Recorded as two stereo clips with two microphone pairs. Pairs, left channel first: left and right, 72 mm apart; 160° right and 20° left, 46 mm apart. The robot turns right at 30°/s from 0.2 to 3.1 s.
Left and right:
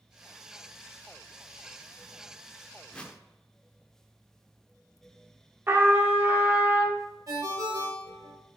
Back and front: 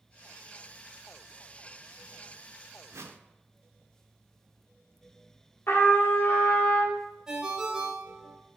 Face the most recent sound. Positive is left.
turn(degrees=-55)